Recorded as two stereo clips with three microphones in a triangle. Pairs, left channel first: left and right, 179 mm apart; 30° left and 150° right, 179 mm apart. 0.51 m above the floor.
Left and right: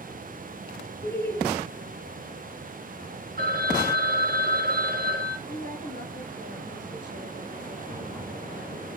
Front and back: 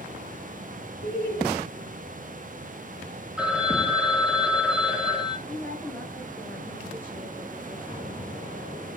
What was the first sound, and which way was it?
Laughter, 10° left.